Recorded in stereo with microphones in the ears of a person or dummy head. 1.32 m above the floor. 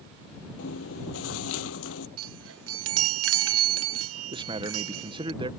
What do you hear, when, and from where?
0.6 s chewing: 75° left (ahead or behind)
2.2 s a chime: 85° right
4.3 s a man speaking: 25° right (ahead or behind)